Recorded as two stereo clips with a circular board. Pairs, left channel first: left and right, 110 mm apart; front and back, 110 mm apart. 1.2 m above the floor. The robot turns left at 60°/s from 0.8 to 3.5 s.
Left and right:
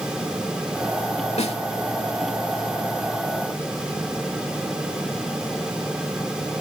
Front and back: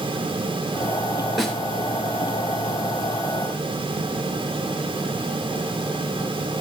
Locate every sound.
1.4 s a snare drum: 90° left, 3.5 m; by 1.6 s 80° left, 3.5 m